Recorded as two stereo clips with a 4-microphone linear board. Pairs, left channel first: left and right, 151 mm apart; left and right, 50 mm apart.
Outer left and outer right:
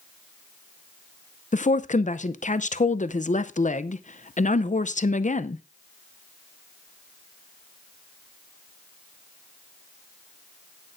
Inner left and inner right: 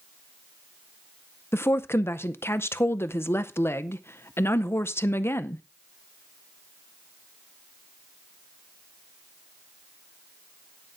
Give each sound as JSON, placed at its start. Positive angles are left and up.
{"t": 1.5, "sound": "a woman speaking", "side_deg": 60, "distance_m": 0.6}